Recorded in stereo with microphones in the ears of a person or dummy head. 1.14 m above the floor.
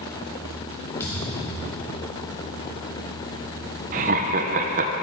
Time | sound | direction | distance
1.0 | a thud | 20° left (ahead or behind) | 3 m
3.9 | laughter | 35° right (ahead or behind) | 0.7 m